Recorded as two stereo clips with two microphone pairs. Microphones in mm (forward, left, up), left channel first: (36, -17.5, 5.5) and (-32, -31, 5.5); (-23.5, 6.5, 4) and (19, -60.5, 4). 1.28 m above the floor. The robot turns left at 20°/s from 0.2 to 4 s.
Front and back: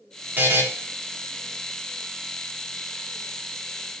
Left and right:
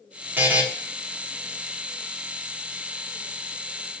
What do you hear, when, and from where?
0.4 s a buzzer: 115° right, 1.1 m; by 0.6 s 120° right, 1.1 m